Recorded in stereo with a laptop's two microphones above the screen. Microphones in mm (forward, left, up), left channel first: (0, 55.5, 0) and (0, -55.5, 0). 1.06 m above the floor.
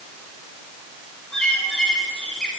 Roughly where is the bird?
Centre.